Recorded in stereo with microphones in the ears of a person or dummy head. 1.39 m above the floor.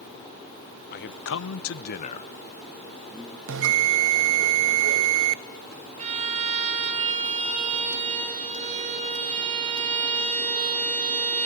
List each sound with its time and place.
0.9 s a man speaking: 55° left (ahead or behind), 1.1 m; by 3.4 s centre (ahead or behind), 2 m
3.5 s a bell: 70° right (ahead or behind), 0.7 m
6.0 s a violin: 35° right (ahead or behind), 3.5 m